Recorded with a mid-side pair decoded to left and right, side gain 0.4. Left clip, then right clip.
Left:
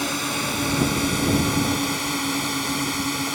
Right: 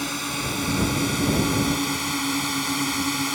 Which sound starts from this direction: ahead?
A drone, at 0.0 s.